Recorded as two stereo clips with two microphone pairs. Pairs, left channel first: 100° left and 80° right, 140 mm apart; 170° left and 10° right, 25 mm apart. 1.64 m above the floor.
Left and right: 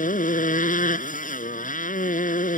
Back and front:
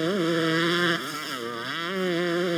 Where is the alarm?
I don't hear an alarm.